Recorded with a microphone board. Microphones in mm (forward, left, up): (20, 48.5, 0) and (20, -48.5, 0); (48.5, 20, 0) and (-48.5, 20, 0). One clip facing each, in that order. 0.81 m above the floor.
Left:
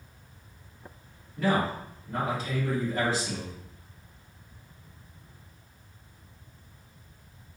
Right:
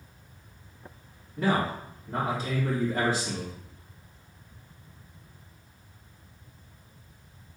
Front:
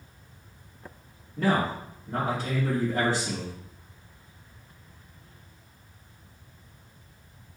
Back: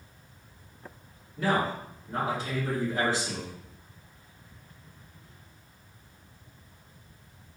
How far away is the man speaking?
About 2.5 m.